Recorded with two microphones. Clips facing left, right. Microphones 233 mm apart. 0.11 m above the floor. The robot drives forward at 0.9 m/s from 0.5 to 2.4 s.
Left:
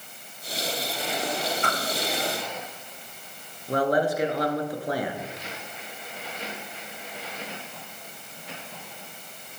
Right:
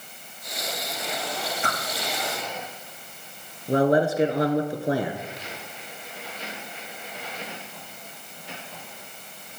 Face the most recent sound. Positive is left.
turn(degrees=-25)  # may be behind; listen again after turning